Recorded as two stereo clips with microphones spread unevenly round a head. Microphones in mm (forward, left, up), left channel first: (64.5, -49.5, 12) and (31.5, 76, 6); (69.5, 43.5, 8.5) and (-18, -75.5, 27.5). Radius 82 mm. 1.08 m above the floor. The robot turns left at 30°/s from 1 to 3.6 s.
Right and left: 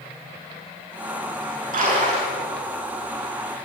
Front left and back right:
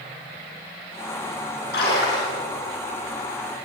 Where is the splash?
90° left, 9.5 m; by 2.3 s 70° left, 9.5 m.